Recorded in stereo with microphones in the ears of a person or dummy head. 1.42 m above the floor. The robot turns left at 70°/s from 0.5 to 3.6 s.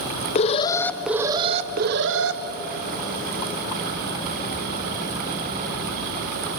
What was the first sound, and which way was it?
An alarm, 40° left.